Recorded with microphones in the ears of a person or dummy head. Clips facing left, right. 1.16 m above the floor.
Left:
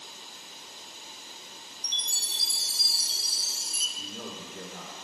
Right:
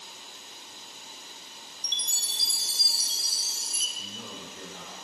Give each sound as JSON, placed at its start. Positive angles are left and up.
{"t": 1.8, "sound": "a chime", "side_deg": -20, "distance_m": 0.7}
{"t": 4.0, "sound": "a man speaking", "side_deg": 50, "distance_m": 1.1}